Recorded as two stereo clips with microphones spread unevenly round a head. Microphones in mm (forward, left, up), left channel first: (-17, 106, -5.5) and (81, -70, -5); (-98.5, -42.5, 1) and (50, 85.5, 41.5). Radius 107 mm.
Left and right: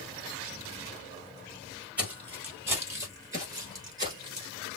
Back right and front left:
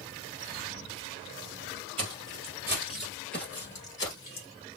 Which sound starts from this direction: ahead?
Footsteps, at 2.0 s.